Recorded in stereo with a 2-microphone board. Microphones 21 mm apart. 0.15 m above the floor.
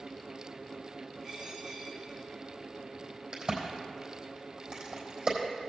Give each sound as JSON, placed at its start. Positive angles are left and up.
{"t": 1.2, "sound": "a dropped coin", "side_deg": -30, "distance_m": 3.0}
{"t": 3.3, "sound": "a crack", "side_deg": -50, "distance_m": 3.5}